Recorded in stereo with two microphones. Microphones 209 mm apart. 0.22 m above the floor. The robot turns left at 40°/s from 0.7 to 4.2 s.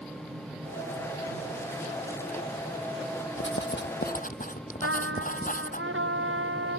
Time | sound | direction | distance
3.4 | writing | 75° left | ?
4.8 | a trumpet | 75° right (ahead or behind) | ?